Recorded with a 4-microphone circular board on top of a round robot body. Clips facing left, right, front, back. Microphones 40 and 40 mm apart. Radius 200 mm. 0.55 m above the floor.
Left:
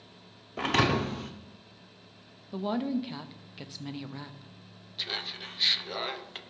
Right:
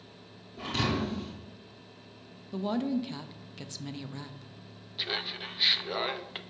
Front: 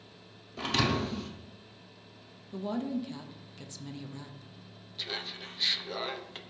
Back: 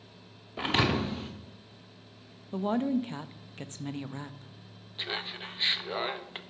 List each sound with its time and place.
0.6 s a thud: 115° left, 0.9 m
2.5 s a woman speaking: 165° left, 0.8 m
5.0 s laughter: 160° right, 1.0 m